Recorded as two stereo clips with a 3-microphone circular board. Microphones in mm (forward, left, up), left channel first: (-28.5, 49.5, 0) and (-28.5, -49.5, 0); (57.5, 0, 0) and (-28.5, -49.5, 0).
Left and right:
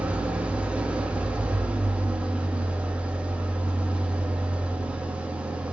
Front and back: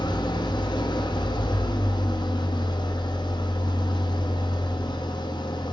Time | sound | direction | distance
0.0 | an engine running | 15° right | 0.8 m